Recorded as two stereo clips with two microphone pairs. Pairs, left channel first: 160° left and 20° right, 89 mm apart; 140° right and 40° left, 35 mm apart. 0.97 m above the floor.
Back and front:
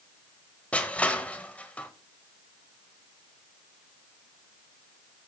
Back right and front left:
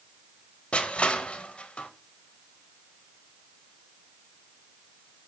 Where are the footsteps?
No footsteps in this recording.